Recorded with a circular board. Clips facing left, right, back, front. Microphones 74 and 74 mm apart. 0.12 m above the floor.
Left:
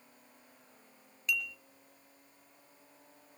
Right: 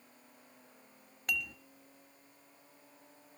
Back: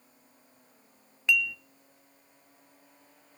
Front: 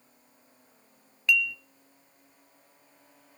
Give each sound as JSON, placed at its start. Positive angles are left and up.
{"t": 1.3, "sound": "dishes clattering", "azimuth_deg": -110, "distance_m": 1.5}